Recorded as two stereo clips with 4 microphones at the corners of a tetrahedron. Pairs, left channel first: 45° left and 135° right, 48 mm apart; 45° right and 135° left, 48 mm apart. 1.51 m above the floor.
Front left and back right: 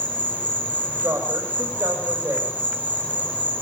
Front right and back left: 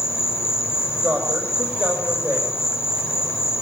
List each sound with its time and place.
0.0 s an insect: 20° right, 4 m
1.0 s a woman speaking: 165° right, 6.5 m